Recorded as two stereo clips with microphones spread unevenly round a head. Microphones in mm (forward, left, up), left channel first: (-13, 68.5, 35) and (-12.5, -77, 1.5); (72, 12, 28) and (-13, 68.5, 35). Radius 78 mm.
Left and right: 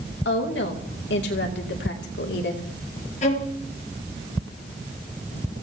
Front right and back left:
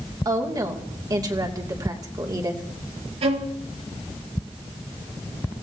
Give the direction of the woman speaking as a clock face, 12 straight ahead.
9 o'clock.